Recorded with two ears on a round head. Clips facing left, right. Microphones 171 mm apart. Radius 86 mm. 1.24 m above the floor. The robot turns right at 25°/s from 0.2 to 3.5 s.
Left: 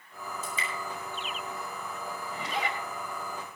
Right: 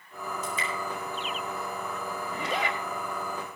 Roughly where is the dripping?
Left.